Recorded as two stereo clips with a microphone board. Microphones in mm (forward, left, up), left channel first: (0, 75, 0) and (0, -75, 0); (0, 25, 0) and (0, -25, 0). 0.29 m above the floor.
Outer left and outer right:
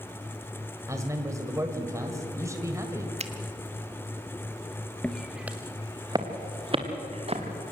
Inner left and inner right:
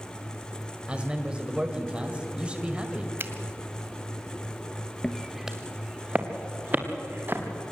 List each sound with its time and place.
0.9 s a man speaking: 20° right (ahead or behind), 1.6 m
3.2 s a finger snap: 45° right (ahead or behind), 1.3 m
5.0 s footsteps: 5° left (ahead or behind), 1.6 m; by 7.4 s 45° right (ahead or behind), 3.5 m